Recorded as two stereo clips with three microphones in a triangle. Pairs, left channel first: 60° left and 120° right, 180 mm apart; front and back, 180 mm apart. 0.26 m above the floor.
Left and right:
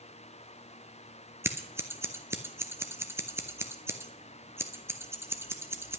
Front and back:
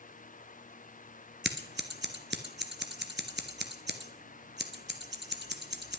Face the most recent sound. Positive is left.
turn(degrees=165)